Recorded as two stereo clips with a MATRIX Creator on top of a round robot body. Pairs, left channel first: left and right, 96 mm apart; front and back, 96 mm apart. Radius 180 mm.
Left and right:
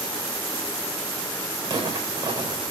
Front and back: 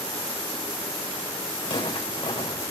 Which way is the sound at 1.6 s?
45° right.